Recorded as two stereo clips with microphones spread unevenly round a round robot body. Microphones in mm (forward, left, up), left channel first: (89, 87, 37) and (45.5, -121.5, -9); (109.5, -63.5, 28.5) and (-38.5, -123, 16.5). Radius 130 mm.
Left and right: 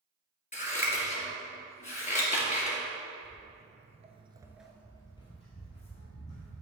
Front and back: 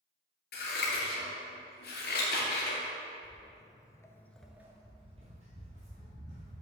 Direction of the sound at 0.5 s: 25° left.